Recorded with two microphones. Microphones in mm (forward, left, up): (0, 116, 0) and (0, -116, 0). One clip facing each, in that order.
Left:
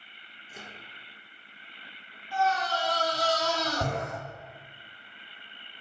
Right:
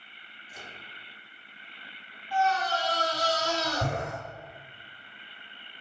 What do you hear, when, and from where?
0.5 s a microwave: 75° left (ahead or behind), 2.5 m
2.3 s a scream: 50° left (ahead or behind), 2.5 m